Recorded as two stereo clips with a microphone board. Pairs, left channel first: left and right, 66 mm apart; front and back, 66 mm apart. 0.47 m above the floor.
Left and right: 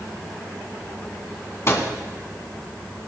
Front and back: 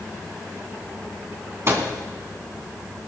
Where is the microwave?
135° left, 3 m.